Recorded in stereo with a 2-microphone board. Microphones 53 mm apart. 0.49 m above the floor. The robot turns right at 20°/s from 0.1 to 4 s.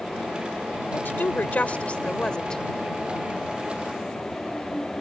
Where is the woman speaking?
135° left; by 2.6 s 170° left.